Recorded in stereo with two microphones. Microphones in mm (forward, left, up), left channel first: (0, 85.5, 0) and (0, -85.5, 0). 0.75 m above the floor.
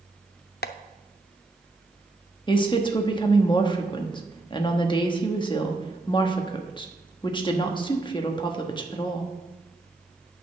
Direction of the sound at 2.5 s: 30° left (ahead or behind).